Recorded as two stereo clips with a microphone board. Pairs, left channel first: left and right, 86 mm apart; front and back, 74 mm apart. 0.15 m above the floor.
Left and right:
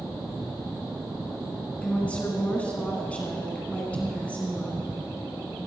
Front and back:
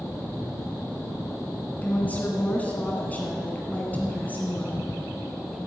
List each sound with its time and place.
1.8 s a woman speaking: 35° left, 1.7 m